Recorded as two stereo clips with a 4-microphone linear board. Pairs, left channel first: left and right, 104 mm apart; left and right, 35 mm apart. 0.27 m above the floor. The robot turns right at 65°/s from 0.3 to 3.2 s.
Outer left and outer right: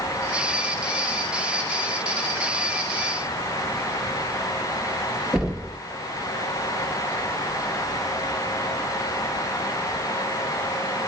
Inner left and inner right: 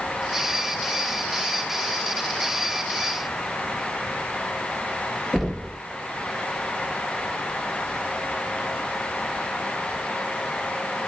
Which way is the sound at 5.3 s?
5° right (ahead or behind).